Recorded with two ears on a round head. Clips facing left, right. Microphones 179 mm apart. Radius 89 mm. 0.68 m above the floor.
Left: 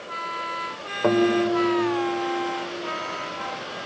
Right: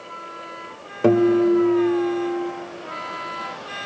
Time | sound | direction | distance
1.0 | a guitar | 35° right (ahead or behind) | 1.5 m